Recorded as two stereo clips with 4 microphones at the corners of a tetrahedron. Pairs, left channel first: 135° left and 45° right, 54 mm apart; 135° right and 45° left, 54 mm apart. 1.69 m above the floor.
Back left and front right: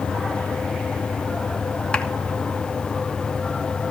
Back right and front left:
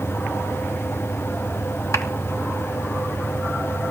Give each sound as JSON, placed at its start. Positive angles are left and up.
{"t": 1.9, "sound": "a clap", "azimuth_deg": -155, "distance_m": 2.5}